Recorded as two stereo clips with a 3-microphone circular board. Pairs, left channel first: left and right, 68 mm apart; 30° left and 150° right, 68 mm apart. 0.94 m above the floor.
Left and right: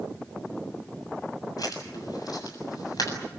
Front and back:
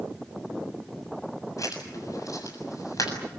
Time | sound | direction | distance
1.6 | writing | 65° left | 7.5 m